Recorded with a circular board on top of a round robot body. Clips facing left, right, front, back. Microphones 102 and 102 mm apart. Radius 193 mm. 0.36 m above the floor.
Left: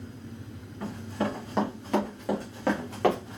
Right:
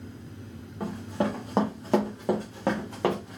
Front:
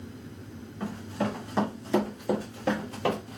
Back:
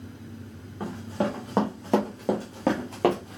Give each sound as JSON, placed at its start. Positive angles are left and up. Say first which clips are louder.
{"t": 0.8, "sound": "running footsteps", "louder": "right 2 dB, back 3 dB", "azimuth_deg": -125, "distance_m": 1.8}